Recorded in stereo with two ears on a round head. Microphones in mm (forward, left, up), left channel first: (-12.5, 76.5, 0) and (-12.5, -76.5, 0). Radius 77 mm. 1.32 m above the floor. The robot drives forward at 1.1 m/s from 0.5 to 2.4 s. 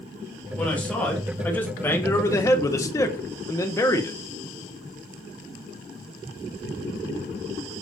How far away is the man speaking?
About 3.5 m.